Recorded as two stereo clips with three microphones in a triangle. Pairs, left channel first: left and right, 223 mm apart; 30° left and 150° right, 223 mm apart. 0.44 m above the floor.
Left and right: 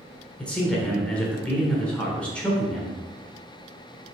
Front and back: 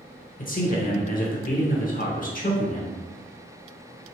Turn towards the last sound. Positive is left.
turn(degrees=10)